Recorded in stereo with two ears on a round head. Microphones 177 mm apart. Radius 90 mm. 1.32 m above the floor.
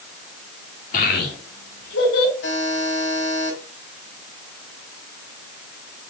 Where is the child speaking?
45° left (ahead or behind), 2 m; by 2.3 s 80° left, 3.5 m.